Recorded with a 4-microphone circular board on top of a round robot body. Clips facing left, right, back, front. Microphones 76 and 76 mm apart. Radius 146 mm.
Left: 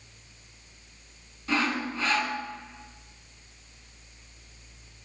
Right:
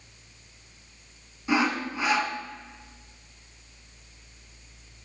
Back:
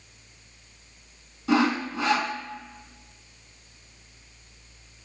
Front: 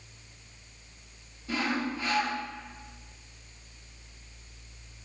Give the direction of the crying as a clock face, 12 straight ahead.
No crying in this recording.